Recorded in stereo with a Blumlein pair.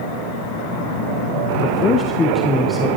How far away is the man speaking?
About 0.9 m.